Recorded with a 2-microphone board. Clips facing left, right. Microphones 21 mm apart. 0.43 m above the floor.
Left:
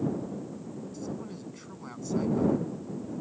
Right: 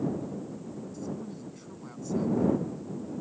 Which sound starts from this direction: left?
A man speaking, at 0.9 s.